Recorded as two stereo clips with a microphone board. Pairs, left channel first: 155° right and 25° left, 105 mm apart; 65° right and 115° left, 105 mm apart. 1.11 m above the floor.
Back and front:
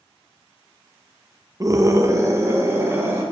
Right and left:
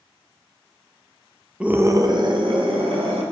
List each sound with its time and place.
1.6 s a scream: 40° left, 0.5 m; by 3.2 s 90° left, 1.7 m